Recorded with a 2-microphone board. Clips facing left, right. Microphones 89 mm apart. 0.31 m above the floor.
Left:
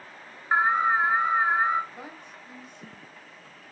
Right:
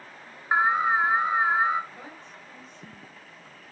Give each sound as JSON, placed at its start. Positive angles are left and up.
{"t": 0.5, "sound": "an alarm", "side_deg": -10, "distance_m": 1.0}
{"t": 1.9, "sound": "a woman speaking", "side_deg": 10, "distance_m": 2.0}